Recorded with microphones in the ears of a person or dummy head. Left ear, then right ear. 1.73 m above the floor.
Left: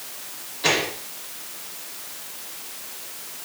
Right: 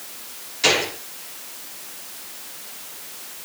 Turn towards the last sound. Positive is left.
turn(degrees=-80)